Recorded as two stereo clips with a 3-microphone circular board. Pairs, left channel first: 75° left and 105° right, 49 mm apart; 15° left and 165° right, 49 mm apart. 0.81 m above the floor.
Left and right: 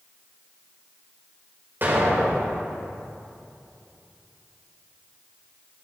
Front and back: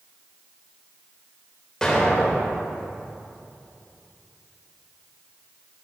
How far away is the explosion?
About 3 m.